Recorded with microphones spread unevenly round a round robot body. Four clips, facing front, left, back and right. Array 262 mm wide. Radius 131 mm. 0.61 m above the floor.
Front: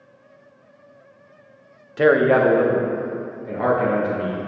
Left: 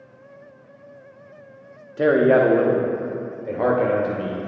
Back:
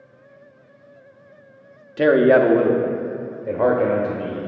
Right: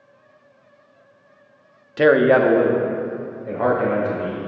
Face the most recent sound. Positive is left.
turn(degrees=155)